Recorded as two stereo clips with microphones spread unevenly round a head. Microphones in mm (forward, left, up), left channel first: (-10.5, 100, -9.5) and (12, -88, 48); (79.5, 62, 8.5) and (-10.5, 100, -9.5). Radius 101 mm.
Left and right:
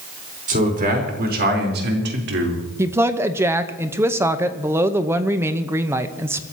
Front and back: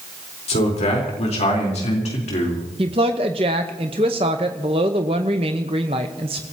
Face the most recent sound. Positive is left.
turn(degrees=-150)